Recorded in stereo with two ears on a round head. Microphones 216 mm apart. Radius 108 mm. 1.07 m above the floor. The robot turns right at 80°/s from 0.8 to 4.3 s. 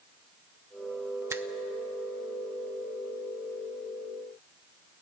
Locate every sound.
1.3 s a finger snap: 10° right (ahead or behind), 0.6 m; by 1.4 s 5° right (ahead or behind), 0.6 m